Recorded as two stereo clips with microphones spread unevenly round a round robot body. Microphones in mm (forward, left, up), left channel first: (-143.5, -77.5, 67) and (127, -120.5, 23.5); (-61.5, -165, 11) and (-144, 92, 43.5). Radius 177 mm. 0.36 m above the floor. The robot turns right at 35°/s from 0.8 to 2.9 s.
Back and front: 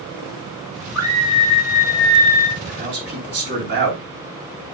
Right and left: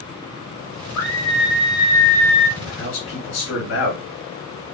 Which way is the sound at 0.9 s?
85° right.